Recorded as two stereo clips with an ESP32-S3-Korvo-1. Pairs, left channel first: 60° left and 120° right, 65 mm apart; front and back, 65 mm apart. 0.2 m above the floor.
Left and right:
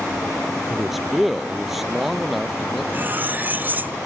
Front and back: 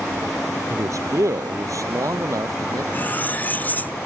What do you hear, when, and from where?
0.7 s a man speaking: 150° left
2.9 s cutlery clinking: 60° right